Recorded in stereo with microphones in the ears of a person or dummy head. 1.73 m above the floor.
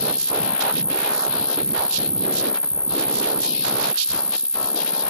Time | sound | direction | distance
0.0 | an insect | 5° left (ahead or behind) | ?